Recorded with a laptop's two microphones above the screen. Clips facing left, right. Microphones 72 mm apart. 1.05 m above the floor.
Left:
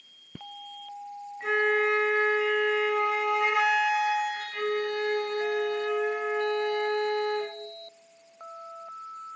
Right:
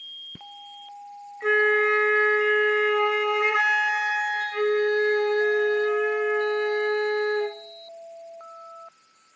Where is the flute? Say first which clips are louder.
Right 4 dB; 60° right (ahead or behind), 1.1 m.